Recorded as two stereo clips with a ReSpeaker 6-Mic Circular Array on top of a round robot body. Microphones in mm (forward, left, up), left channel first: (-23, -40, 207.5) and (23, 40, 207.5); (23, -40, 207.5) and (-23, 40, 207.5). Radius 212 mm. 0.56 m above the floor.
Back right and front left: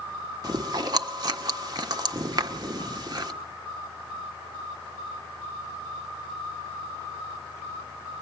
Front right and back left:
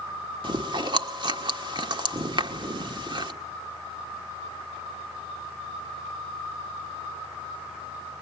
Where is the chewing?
95° left, 1.5 m.